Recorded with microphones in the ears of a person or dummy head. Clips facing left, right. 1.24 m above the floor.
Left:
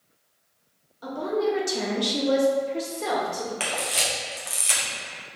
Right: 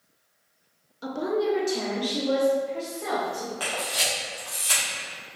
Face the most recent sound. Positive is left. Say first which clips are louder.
# left 1 dB
turn(degrees=30)  # may be behind; listen again after turning